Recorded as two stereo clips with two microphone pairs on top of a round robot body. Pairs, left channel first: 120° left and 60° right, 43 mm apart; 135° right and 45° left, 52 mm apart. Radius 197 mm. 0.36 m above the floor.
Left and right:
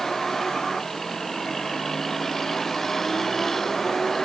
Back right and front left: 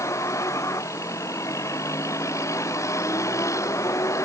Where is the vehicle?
155° right.